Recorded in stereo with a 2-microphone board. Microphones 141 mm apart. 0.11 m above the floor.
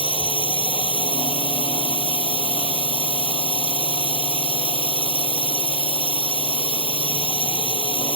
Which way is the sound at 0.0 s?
40° left (ahead or behind).